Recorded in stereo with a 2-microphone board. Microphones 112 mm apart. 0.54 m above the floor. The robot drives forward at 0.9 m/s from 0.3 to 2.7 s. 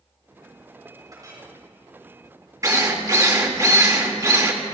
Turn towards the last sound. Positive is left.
turn(degrees=-30)  # may be behind; listen again after turning